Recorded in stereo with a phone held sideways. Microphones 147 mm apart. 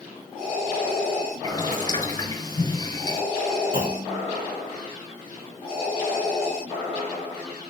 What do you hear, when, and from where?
1.4 s boiling: 25° left (ahead or behind), 6.5 m
3.7 s a clunk: 70° right (ahead or behind), 2 m